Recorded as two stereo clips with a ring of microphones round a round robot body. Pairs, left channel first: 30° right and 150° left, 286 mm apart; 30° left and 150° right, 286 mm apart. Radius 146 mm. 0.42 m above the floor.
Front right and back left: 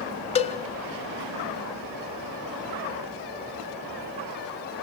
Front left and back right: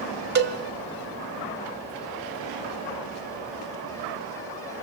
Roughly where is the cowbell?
Right.